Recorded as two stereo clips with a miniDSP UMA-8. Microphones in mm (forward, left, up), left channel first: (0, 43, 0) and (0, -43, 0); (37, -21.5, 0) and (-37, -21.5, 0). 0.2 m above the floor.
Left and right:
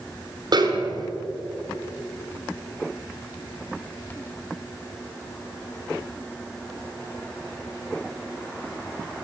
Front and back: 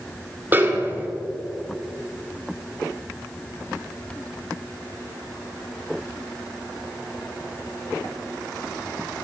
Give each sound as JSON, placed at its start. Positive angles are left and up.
{"t": 0.5, "sound": "a snare drum", "azimuth_deg": -120, "distance_m": 1.9}